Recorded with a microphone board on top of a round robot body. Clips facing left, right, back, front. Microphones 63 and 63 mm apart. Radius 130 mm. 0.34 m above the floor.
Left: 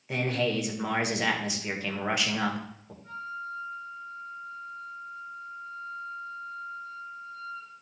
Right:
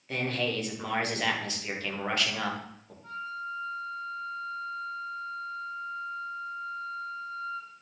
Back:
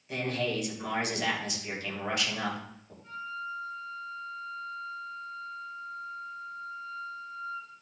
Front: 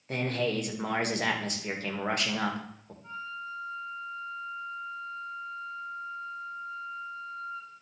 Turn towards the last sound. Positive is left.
turn(degrees=-60)